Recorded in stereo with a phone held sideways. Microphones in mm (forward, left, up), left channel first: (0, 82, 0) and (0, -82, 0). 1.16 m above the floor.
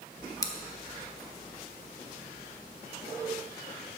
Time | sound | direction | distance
0.4 | scissors | 20° left (ahead or behind) | 0.7 m